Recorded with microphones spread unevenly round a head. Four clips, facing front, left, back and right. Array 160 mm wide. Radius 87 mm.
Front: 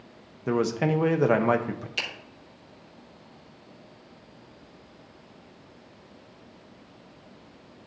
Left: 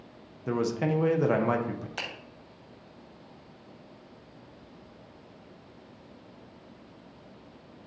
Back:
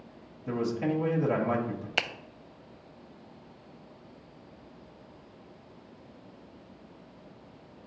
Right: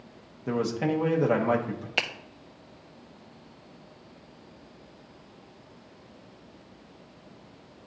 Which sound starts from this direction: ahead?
A man speaking, at 0.5 s.